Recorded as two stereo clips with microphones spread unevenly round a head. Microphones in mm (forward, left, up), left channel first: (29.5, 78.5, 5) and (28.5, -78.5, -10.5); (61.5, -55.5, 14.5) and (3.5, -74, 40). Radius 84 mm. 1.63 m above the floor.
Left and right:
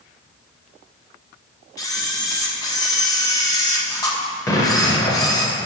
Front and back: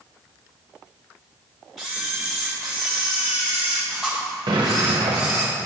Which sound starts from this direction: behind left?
A camera shutter, at 1.8 s.